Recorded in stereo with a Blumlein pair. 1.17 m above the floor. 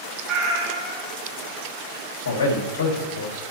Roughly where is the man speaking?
Ahead left.